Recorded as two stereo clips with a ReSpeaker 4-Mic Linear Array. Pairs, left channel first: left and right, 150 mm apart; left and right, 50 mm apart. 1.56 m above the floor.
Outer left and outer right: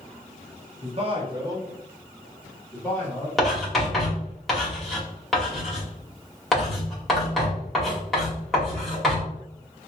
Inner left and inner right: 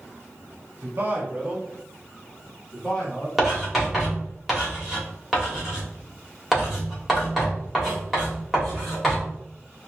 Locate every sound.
0.8 s a man speaking: 45° right (ahead or behind), 0.9 m; by 3.3 s 20° left (ahead or behind), 1.3 m
3.4 s writing: centre (ahead or behind), 1.4 m